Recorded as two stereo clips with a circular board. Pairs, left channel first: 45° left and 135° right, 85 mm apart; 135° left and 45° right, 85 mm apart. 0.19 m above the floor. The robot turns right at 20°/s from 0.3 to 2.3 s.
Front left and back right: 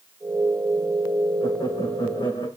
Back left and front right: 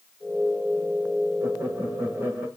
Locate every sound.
1.4 s laughter: 5° left, 9.5 m; by 2.5 s 20° left, 9.5 m